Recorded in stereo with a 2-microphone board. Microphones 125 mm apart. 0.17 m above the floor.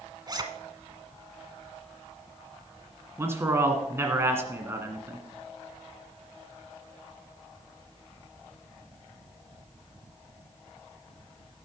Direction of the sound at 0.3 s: 35° right (ahead or behind).